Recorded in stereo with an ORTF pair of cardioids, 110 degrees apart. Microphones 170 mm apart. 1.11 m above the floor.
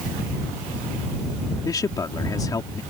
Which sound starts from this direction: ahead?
A man speaking, at 1.6 s.